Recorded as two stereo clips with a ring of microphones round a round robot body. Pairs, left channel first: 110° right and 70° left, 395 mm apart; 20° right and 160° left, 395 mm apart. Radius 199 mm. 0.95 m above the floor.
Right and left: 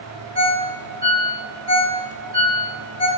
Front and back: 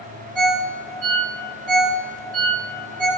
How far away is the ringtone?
About 2 m.